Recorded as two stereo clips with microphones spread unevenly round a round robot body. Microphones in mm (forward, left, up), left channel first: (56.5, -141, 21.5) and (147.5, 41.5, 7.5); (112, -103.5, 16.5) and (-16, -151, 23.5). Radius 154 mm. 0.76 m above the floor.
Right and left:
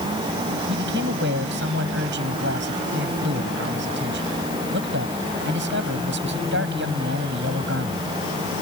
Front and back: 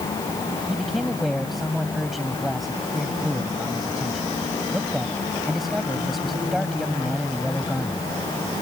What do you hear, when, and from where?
0.7 s a man speaking: 110° left